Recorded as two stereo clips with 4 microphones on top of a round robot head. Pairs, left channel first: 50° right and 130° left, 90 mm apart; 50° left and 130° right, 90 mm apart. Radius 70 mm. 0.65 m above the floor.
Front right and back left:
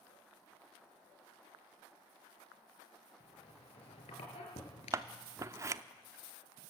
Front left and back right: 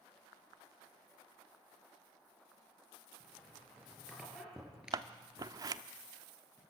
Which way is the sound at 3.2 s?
45° right.